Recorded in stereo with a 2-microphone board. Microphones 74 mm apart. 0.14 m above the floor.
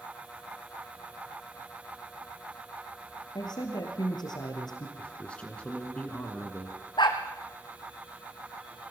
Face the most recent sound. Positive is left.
turn(degrees=80)